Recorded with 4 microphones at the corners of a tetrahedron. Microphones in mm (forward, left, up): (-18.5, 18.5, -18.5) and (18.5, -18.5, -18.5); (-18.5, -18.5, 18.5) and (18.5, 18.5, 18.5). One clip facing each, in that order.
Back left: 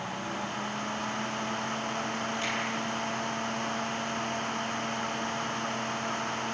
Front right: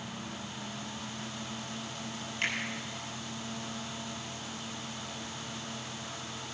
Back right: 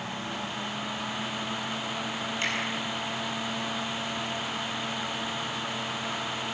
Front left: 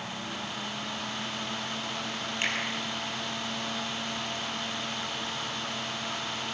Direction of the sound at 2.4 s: 10° right.